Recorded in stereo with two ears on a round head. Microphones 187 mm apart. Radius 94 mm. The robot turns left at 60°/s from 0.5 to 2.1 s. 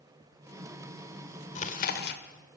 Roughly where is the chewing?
Behind left.